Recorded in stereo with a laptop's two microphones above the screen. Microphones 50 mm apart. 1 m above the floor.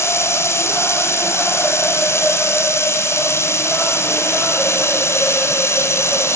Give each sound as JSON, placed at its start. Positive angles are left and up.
{"t": 0.0, "sound": "running water", "side_deg": 60, "distance_m": 6.5}